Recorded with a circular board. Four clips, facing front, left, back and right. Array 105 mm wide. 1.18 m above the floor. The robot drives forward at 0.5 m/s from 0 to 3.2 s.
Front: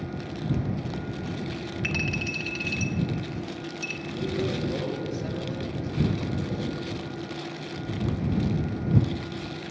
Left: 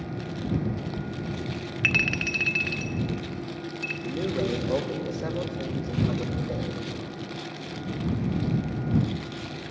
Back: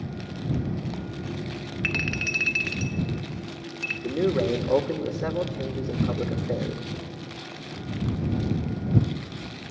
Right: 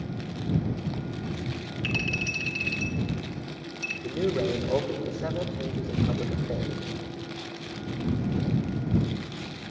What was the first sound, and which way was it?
A clink, 105° left.